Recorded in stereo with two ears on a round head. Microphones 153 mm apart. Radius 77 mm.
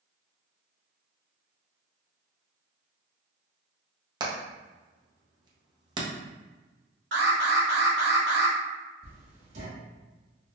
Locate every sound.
4.2 s hammering: 25° right (ahead or behind), 0.8 m
7.1 s an alarm: 70° right (ahead or behind), 1.4 m
9.0 s writing: 50° right (ahead or behind), 1.8 m